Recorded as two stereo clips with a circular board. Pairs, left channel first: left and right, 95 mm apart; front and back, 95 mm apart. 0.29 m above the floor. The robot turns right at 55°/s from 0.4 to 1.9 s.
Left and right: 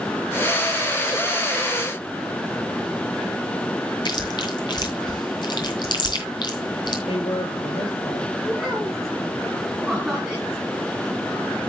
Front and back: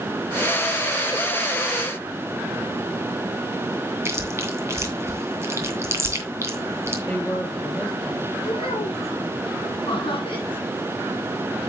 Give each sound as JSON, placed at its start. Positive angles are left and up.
{"t": 4.0, "sound": "chewing", "azimuth_deg": 120, "distance_m": 2.5}
{"t": 7.0, "sound": "a man speaking", "azimuth_deg": 75, "distance_m": 6.5}
{"t": 8.4, "sound": "a child speaking", "azimuth_deg": 0, "distance_m": 6.5}
{"t": 9.9, "sound": "laughter", "azimuth_deg": -5, "distance_m": 2.5}